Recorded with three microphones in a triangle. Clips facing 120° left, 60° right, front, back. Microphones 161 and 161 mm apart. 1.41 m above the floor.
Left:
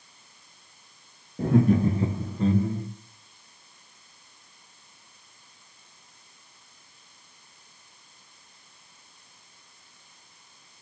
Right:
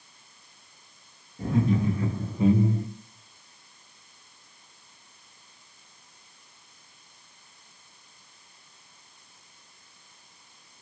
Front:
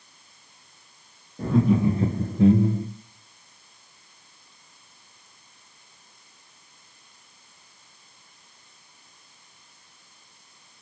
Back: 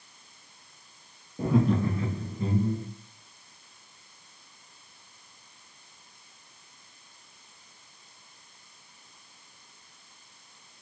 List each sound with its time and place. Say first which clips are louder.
1.4 s laughter: left 4 dB, front 4 dB; 105° left, 0.7 m; by 2.9 s straight ahead, 0.8 m